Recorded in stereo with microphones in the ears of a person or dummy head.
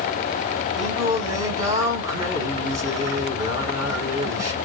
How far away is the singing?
About 3 m.